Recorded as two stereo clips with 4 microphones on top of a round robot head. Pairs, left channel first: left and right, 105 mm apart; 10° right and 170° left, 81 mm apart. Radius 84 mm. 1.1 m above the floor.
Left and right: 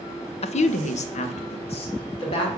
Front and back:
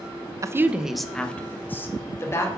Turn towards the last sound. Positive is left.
turn(degrees=45)